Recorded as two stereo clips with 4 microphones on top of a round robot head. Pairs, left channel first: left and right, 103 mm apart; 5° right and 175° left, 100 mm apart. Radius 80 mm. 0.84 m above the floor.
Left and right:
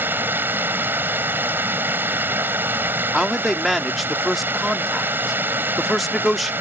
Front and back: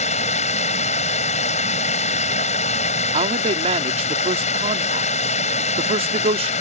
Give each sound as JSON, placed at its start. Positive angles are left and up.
{"t": 0.0, "sound": "running water", "azimuth_deg": -15}
{"t": 3.1, "sound": "a man speaking", "azimuth_deg": 180}